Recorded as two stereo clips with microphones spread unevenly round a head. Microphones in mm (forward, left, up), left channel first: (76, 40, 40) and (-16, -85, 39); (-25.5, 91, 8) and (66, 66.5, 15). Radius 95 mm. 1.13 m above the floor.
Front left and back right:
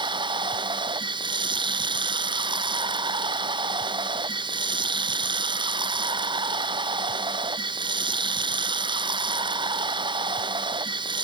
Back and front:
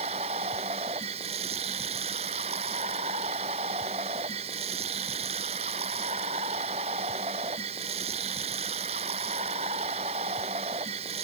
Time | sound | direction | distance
0.0 | running water | 70° right | ?